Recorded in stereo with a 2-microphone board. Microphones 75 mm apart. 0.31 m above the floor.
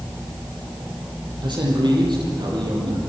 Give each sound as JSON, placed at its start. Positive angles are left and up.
{"t": 1.4, "sound": "a man speaking", "side_deg": -85, "distance_m": 8.0}